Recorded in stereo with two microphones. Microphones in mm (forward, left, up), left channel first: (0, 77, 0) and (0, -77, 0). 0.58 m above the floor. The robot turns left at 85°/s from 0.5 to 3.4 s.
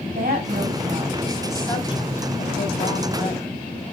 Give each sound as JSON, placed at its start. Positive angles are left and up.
{"t": 0.1, "sound": "a woman speaking", "azimuth_deg": -90, "distance_m": 3.0}